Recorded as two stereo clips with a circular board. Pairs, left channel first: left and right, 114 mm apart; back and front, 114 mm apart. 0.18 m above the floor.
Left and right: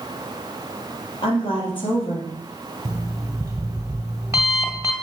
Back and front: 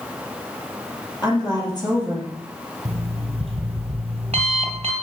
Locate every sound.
1.2 s a woman speaking: 130° left, 4 m
2.9 s an alarm clock: 30° right, 2 m